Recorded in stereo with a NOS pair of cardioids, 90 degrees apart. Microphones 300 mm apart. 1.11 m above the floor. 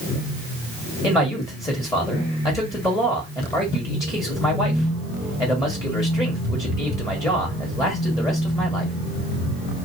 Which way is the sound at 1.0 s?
10° left.